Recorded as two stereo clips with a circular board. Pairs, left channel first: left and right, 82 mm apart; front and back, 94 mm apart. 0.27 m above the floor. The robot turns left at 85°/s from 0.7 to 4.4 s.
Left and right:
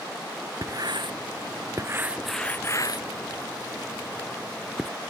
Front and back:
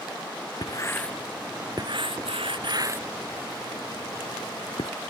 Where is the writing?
45° right; by 4.9 s straight ahead.